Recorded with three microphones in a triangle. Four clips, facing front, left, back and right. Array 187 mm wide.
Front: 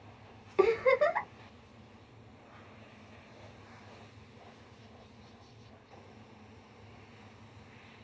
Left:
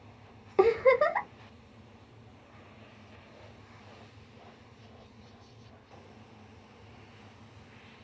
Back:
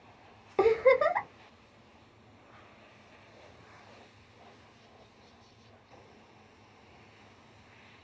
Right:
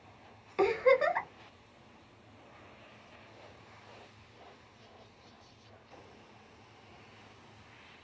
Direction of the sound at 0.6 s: 120° left.